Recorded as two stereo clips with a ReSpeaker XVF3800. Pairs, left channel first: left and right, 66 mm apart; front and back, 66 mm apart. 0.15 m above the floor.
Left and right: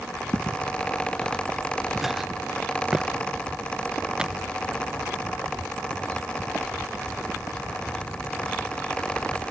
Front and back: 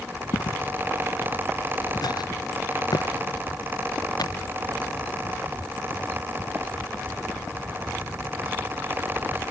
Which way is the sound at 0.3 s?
10° left.